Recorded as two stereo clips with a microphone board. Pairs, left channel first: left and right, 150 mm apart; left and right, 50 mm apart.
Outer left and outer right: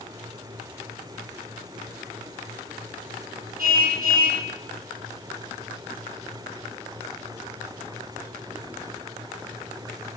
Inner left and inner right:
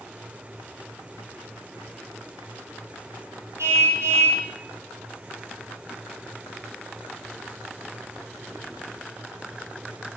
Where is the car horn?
70° right (ahead or behind), 4.5 m.